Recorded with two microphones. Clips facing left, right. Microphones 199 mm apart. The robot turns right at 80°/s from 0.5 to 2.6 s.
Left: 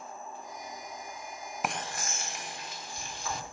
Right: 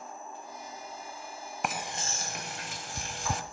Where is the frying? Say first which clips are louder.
Even; centre (ahead or behind), 1.6 m; by 3.4 s 75° right (ahead or behind), 1.6 m.